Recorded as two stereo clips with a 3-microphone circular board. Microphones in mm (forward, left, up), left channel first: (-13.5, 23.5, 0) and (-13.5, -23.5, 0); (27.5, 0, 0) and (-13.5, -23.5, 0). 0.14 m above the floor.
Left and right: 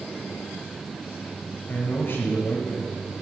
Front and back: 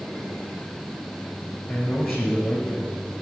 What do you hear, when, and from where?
1.7 s a man speaking: 70° left, 2 m